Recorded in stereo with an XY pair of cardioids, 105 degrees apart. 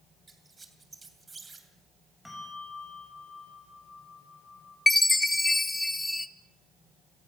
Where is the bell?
10° left, 5 m.